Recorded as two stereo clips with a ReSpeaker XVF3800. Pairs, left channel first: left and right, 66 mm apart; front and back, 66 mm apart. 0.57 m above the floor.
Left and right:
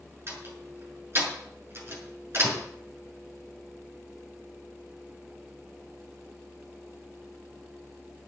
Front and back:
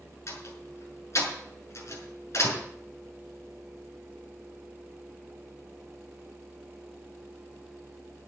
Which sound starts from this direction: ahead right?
A door slam, at 0.3 s.